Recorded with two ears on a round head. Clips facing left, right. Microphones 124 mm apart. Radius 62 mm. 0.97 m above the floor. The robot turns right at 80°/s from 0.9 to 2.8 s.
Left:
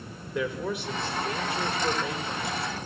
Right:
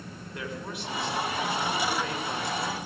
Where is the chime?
No chime in this recording.